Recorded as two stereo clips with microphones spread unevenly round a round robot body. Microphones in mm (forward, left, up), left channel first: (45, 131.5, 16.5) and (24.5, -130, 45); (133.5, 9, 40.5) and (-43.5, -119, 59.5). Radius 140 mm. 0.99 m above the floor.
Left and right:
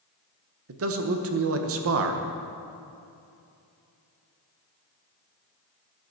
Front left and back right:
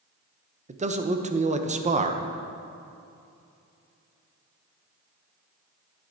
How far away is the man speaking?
About 0.9 m.